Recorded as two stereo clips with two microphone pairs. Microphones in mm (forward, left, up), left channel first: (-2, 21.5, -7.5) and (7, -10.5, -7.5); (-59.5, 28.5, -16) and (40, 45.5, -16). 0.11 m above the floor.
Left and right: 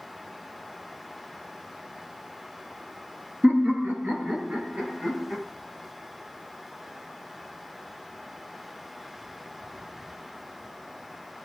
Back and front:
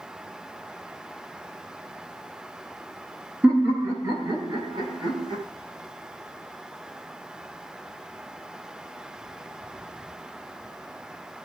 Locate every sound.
3.4 s laughter: 65° right, 2.5 m; by 5.4 s 15° right, 3 m